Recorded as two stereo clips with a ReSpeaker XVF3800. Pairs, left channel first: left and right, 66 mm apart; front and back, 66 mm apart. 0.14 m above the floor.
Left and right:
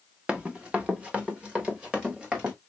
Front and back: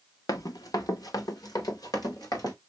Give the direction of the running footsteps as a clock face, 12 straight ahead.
12 o'clock.